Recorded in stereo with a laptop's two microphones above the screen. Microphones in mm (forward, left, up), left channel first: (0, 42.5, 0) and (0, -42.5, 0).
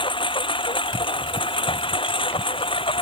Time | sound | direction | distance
0.0 | a lawn mower | 70° left (ahead or behind) | ?